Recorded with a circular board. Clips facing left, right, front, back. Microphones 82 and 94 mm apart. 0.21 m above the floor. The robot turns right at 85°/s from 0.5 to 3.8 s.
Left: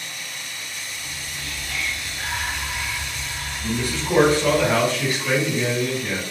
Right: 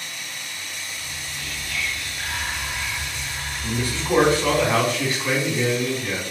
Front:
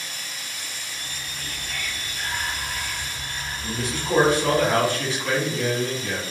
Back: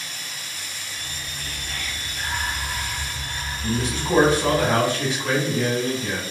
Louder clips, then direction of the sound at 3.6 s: Left 1 dB, back 4 dB; 140° right.